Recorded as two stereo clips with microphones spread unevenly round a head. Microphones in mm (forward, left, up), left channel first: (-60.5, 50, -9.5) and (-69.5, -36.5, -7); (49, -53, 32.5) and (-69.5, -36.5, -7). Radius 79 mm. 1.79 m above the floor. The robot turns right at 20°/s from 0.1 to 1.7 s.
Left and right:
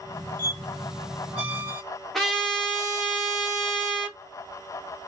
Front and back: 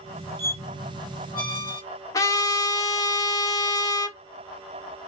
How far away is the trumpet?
About 1.4 m.